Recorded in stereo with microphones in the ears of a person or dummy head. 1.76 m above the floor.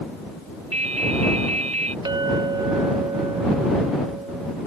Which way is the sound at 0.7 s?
35° right (ahead or behind).